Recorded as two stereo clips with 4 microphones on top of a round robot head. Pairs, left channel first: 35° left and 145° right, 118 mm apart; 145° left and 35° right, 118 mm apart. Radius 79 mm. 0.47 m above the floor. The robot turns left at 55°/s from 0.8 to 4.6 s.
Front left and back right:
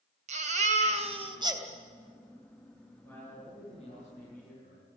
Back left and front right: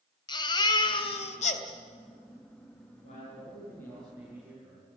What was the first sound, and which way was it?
A baby crying, 165° right.